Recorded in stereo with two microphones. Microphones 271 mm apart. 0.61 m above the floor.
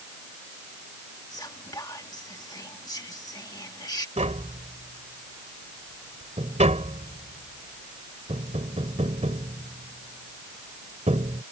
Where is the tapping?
25° right (ahead or behind).